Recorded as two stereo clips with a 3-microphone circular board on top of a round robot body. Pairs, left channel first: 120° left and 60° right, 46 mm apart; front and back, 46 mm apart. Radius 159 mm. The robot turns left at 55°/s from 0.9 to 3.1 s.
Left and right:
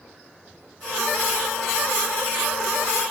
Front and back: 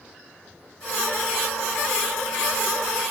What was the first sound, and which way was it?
Only background noise.